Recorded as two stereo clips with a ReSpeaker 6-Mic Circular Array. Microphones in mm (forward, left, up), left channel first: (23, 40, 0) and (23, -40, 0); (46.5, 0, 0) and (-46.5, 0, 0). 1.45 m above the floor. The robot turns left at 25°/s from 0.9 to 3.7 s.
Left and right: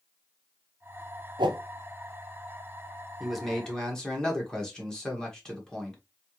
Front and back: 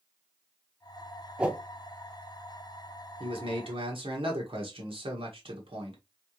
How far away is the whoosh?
About 0.6 m.